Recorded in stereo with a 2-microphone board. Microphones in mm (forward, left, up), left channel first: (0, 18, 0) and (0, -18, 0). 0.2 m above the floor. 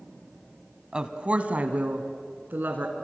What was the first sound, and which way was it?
A woman speaking, 25° right (ahead or behind).